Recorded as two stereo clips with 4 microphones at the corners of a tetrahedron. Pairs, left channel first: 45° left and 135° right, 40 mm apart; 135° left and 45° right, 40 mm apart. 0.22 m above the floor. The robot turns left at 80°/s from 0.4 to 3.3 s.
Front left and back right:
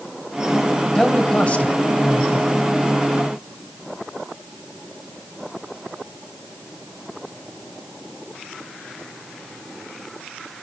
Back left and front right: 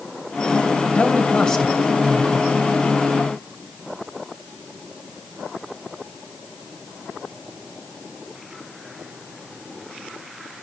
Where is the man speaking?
125° left, 1.7 m; by 2.5 s straight ahead, 1.7 m.